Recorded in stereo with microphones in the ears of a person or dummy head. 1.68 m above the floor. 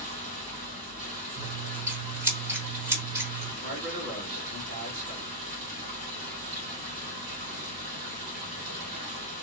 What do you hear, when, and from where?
0.0 s running water: 45° right (ahead or behind), 1.6 m
1.4 s scissors: 15° right (ahead or behind), 1.1 m
3.6 s a man speaking: 55° right (ahead or behind), 1.7 m